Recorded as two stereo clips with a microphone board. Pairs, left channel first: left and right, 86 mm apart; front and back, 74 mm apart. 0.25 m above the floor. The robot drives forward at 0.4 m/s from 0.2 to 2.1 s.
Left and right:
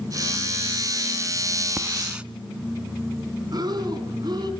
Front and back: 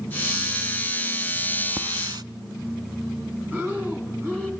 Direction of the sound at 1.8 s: 160° right.